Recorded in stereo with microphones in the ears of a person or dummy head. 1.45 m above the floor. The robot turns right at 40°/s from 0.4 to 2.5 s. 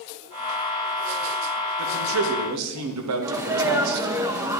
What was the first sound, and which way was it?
A man speaking, 55° right (ahead or behind).